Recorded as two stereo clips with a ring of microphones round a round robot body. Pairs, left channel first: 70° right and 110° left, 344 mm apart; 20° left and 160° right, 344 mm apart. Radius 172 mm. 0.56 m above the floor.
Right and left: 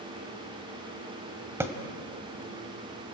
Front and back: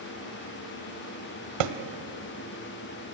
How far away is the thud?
About 1.5 m.